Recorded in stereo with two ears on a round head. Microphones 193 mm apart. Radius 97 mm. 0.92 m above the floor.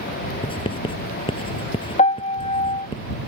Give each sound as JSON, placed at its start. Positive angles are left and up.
{"t": 0.4, "sound": "writing", "side_deg": 25}
{"t": 2.0, "sound": "a piano", "side_deg": 30}